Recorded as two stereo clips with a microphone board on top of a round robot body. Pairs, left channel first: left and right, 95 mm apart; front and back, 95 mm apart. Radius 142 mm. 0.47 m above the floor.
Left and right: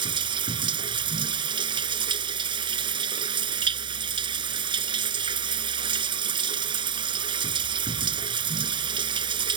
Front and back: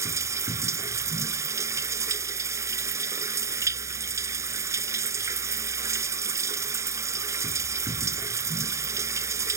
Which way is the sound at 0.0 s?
125° right.